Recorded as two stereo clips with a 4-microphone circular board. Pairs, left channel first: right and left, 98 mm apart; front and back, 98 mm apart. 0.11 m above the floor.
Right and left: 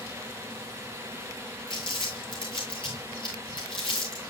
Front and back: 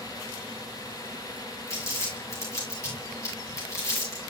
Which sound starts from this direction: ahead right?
Crumpling, at 1.7 s.